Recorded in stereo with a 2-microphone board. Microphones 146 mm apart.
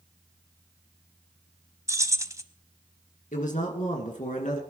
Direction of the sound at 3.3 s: 60° left (ahead or behind).